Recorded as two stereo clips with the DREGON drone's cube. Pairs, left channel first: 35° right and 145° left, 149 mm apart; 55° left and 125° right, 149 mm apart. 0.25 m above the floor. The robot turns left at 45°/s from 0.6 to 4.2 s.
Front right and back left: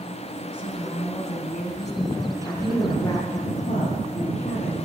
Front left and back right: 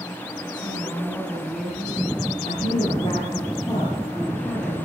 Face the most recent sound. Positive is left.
turn(degrees=-35)